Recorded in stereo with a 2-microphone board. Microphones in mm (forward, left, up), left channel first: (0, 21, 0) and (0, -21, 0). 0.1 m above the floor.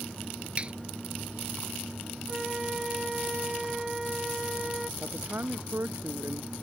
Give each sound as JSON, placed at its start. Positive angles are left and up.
{"t": 0.6, "sound": "a finger snap", "side_deg": -30}
{"t": 2.3, "sound": "a flute", "side_deg": -10}
{"t": 5.0, "sound": "a man speaking", "side_deg": -60}